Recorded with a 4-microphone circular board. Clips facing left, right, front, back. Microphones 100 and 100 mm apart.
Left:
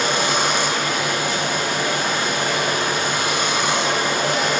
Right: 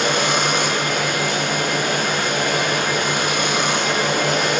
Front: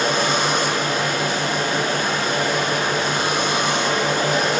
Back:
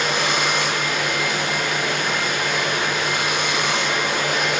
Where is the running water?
60° right, 7.5 m.